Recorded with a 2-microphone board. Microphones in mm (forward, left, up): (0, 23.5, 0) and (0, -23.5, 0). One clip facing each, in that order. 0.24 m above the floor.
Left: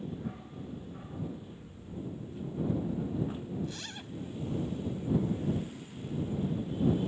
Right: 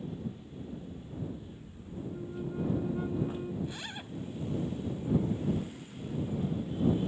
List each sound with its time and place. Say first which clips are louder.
0.1 s a dog barking: even; 70° left (ahead or behind); by 2.0 s 75° left (ahead or behind)
2.1 s a flute: right 5 dB; 60° right (ahead or behind)
3.6 s a zipper: right 1 dB; 15° right (ahead or behind)